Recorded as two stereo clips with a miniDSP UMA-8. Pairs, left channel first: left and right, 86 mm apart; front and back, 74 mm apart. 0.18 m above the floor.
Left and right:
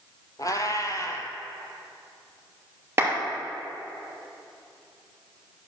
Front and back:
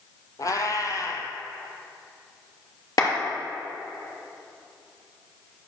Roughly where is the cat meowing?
Ahead left.